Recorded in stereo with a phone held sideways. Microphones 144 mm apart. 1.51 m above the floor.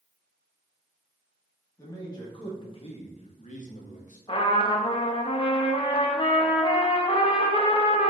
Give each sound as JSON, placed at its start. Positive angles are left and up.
{"t": 1.8, "sound": "a man speaking", "side_deg": 25, "distance_m": 1.5}
{"t": 4.3, "sound": "a trumpet", "side_deg": 40, "distance_m": 0.6}